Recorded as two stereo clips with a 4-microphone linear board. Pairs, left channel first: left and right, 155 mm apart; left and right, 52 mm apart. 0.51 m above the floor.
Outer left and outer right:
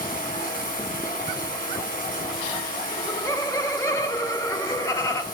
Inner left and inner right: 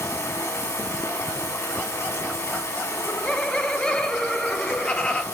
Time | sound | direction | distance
0.0 | running water | 70° left (ahead or behind) | 2.5 m
2.9 | laughter | 20° left (ahead or behind) | 0.9 m